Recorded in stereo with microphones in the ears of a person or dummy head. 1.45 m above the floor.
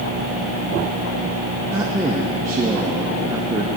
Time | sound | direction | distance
1.7 | a man speaking | 5° right (ahead or behind) | 0.6 m